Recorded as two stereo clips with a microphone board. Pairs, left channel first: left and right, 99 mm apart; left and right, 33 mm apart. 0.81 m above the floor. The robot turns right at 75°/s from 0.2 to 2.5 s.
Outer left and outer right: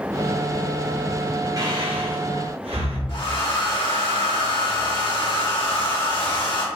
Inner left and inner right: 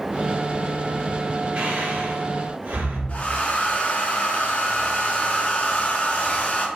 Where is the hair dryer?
55° left (ahead or behind), 1.5 m.